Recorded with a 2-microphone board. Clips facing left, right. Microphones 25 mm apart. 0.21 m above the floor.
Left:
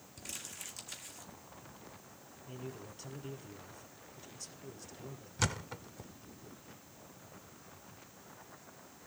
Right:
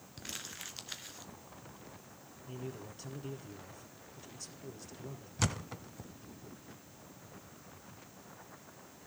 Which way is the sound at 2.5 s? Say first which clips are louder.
Right 2 dB; 5° right (ahead or behind).